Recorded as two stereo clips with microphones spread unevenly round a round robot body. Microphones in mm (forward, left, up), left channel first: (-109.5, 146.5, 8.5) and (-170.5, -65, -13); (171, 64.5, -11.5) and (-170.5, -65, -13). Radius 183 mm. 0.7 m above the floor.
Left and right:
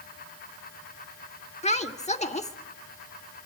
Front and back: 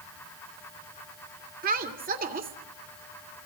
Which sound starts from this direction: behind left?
A woman speaking, at 1.6 s.